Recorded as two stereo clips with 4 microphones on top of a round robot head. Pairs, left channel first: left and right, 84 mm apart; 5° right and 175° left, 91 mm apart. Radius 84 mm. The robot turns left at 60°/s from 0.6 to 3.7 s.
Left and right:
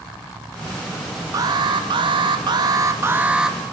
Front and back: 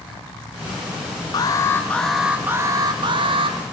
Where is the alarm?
45° right, 1.9 m; by 3.6 s straight behind, 1.9 m.